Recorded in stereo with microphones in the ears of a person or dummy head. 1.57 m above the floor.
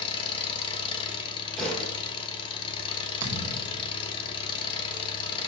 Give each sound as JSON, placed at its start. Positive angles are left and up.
{"t": 0.0, "sound": "an engine running", "side_deg": 25, "distance_m": 1.2}
{"t": 1.6, "sound": "a thud", "side_deg": 5, "distance_m": 4.0}
{"t": 3.2, "sound": "a thud", "side_deg": -20, "distance_m": 1.7}